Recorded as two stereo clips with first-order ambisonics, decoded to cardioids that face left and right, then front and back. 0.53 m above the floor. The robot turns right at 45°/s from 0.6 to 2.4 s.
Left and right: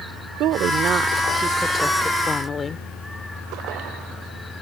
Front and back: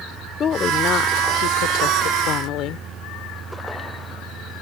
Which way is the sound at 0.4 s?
55° right.